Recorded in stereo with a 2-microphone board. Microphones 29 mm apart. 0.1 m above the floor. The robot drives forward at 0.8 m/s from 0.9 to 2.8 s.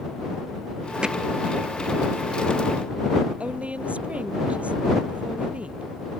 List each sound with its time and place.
1.0 s hammering: 25° right (ahead or behind)
3.4 s a woman speaking: 45° right (ahead or behind)